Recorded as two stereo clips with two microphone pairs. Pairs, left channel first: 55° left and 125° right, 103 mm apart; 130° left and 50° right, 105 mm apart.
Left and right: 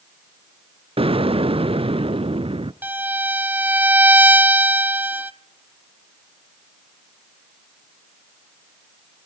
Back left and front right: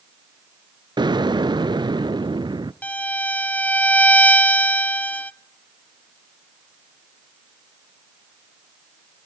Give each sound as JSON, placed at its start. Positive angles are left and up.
{"t": 1.0, "sound": "an explosion", "azimuth_deg": -100, "distance_m": 0.5}
{"t": 2.8, "sound": "a violin", "azimuth_deg": -175, "distance_m": 0.6}